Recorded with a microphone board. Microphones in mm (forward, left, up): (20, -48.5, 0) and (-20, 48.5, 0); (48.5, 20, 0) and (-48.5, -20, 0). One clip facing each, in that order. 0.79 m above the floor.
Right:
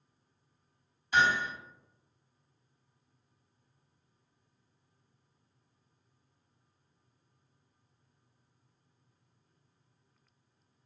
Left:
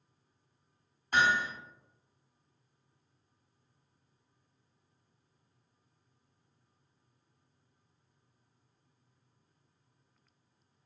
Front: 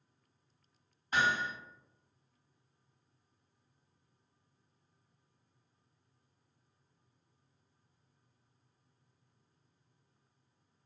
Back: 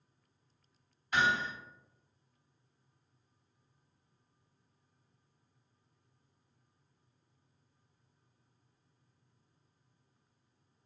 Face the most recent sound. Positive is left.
turn(degrees=75)